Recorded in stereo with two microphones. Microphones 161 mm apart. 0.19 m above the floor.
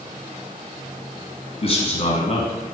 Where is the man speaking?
40° left (ahead or behind), 1.7 m.